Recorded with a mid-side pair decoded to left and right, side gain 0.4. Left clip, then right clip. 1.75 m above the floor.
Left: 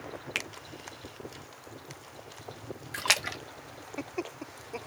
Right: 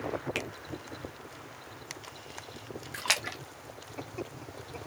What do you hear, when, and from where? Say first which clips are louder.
0.3 s a finger snap: left 5 dB; 35° left, 0.6 m
2.9 s a splash: left 3 dB; 30° left, 0.6 m